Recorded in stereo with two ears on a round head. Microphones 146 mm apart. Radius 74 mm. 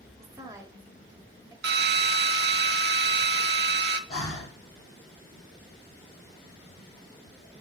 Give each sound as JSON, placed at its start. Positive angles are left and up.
{"t": 0.2, "sound": "a woman speaking", "side_deg": -20, "distance_m": 1.3}
{"t": 1.6, "sound": "a drill", "side_deg": -65, "distance_m": 0.8}
{"t": 4.1, "sound": "breathing", "side_deg": 30, "distance_m": 3.0}